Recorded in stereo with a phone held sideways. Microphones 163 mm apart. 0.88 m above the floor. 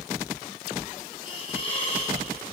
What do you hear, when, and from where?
1.2 s a hiss: 35° left (ahead or behind), 6 m